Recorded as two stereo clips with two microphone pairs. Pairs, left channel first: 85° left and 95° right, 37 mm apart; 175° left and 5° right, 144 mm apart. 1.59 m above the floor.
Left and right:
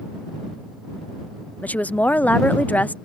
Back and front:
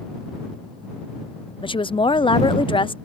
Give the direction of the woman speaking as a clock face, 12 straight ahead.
8 o'clock.